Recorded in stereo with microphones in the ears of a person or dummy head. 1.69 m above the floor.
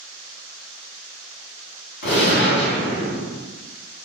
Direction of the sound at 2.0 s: 50° left (ahead or behind).